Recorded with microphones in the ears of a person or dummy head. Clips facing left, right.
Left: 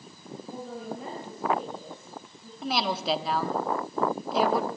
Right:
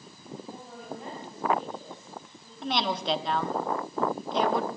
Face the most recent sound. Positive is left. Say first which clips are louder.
# left 1 dB
turn(degrees=5)  # may be behind; listen again after turning